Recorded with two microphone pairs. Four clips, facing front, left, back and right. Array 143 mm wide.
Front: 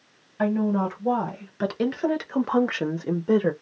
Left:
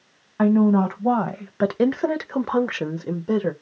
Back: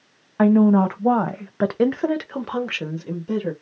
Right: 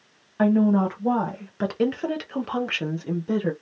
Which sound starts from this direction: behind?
A woman speaking, at 0.4 s.